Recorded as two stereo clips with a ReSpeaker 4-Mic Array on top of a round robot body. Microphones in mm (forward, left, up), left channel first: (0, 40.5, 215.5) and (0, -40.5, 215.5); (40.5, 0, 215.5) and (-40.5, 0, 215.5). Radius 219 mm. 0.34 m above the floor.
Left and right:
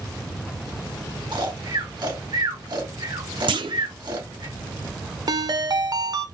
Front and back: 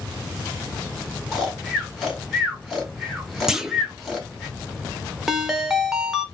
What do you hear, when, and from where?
1.3 s snoring: 85° right, 3 m
3.5 s a clunk: 95° right, 0.7 m
5.3 s a ringtone: 95° right, 1.1 m